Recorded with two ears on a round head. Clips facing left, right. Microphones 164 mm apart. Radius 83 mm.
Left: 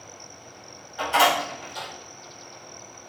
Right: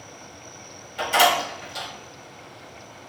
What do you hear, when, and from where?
1.0 s a door slam: 30° right (ahead or behind), 1.9 m